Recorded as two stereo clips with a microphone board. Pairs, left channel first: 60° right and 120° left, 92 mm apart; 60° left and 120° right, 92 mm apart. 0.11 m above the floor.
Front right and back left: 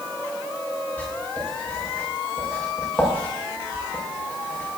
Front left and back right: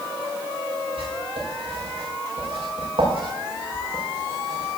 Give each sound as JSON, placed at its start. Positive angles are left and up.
{"t": 1.0, "sound": "writing", "azimuth_deg": -135, "distance_m": 8.5}